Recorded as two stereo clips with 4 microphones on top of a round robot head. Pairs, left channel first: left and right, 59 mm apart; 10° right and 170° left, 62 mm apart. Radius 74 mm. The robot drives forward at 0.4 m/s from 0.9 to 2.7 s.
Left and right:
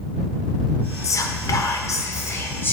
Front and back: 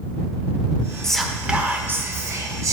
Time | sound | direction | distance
1.0 | whispering | 70° left | 0.5 m